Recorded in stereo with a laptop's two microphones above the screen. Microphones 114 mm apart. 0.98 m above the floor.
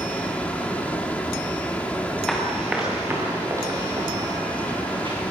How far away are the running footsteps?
About 3.5 m.